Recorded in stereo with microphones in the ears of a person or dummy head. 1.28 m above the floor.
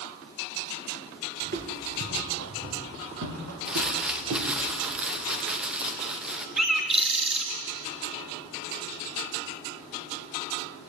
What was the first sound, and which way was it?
Footsteps, 45° right (ahead or behind).